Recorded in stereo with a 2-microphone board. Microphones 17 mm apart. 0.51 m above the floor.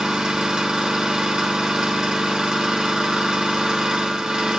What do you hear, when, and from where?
0.0 s an engine running: 65° right (ahead or behind), 1.0 m